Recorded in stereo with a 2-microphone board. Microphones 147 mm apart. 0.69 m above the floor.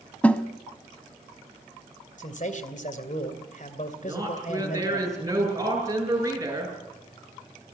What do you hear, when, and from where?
0.2 s a snare drum: 10° left (ahead or behind), 1.0 m
2.2 s a man speaking: 60° left (ahead or behind), 2.5 m
4.0 s a woman speaking: 20° right (ahead or behind), 8.5 m